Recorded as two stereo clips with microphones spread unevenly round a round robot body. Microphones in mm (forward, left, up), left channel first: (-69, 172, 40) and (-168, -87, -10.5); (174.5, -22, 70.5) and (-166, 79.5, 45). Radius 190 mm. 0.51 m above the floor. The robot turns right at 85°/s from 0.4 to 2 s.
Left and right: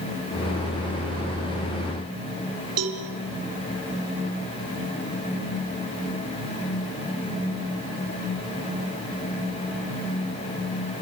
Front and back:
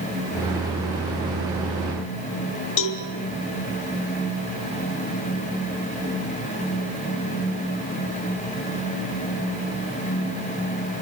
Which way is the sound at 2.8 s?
60° right.